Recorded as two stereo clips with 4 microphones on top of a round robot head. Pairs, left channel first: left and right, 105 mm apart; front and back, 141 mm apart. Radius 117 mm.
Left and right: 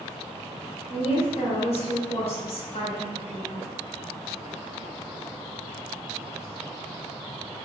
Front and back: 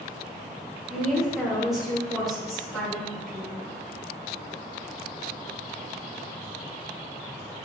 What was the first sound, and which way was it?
A woman speaking, 95° left.